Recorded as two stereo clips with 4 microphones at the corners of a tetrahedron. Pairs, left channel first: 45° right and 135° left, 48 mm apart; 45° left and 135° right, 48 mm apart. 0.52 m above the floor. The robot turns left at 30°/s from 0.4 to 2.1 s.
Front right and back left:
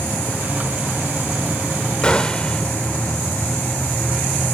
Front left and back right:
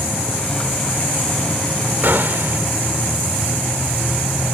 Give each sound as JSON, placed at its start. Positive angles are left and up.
{"t": 2.0, "sound": "a gunshot", "azimuth_deg": -105, "distance_m": 1.6}